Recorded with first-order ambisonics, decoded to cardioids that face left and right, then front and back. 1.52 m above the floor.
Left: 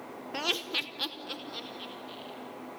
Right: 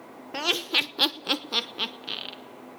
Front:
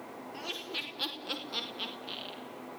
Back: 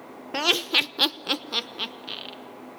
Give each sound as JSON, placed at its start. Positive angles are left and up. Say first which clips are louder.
{"t": 0.3, "sound": "laughter", "louder": "right 6 dB, back 16 dB", "azimuth_deg": -170, "distance_m": 0.7}